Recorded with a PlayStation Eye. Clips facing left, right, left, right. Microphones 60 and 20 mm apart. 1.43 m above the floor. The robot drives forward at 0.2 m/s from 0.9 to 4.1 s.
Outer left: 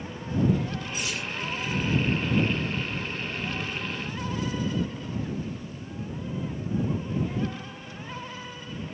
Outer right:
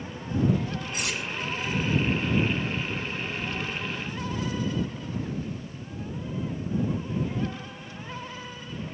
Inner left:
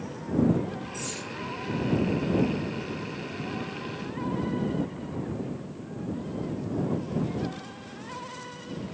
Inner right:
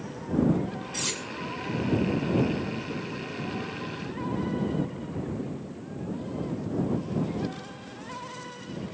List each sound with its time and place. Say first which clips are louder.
0.9 s cutlery clinking: outer right 2 dB, inner right 4 dB; 70° right (ahead or behind), 3 m